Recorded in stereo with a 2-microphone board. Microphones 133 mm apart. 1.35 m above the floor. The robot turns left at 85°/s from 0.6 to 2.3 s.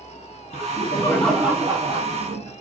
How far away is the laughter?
About 0.8 m.